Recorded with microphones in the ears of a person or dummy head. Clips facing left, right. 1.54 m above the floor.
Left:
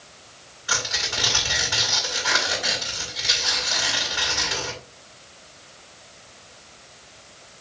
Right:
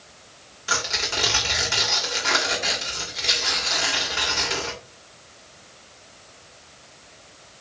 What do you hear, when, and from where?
0.7 s tearing paper: 55° right (ahead or behind), 2.5 m